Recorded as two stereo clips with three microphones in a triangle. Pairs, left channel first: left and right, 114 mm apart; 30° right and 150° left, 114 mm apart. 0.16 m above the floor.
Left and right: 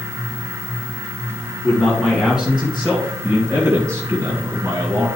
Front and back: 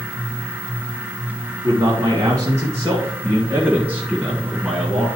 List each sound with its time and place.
1.6 s a man speaking: 175° left, 2 m; by 5.1 s 125° right, 2.5 m